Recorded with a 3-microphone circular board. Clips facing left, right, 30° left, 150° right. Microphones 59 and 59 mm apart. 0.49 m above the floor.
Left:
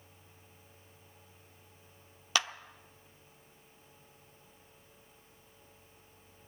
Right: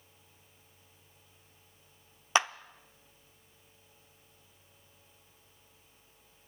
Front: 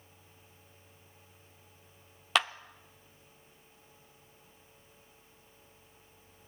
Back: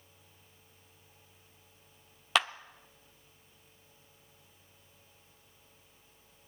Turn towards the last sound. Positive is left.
turn(degrees=-60)